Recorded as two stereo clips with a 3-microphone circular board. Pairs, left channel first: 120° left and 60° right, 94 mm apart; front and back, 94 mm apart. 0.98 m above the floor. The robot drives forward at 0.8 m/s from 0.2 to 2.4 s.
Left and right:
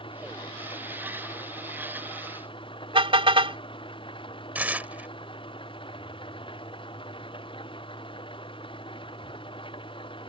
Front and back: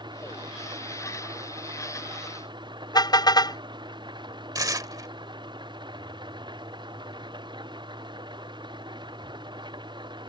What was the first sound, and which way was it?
An engine running, 140° left.